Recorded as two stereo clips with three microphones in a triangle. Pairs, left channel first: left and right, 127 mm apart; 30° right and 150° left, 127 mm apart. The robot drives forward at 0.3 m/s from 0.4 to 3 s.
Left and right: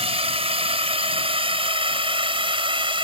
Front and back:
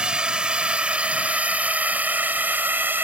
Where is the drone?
130° right; by 3.0 s 135° right.